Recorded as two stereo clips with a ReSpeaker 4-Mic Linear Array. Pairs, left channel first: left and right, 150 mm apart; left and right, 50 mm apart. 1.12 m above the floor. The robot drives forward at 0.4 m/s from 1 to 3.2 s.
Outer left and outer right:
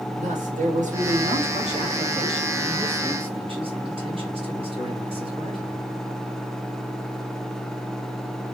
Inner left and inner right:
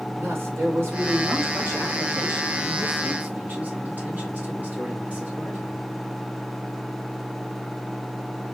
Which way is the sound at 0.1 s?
55° right (ahead or behind).